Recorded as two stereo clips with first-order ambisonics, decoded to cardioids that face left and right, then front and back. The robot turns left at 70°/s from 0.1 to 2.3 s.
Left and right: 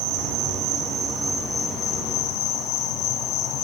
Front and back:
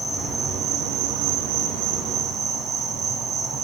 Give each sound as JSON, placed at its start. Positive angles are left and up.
{"t": 0.0, "sound": "an insect", "azimuth_deg": -85, "distance_m": 6.5}